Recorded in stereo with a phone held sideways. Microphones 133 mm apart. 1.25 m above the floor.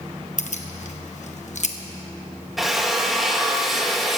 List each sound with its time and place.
0.4 s keys jangling: 65° left (ahead or behind), 0.9 m
2.6 s a drill: centre (ahead or behind), 1.1 m